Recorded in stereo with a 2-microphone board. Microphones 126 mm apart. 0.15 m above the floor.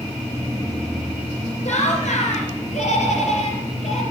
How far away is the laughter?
About 3 m.